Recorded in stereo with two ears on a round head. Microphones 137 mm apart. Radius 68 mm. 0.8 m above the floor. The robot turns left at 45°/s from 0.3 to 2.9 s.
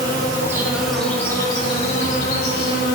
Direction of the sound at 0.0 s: 155° right.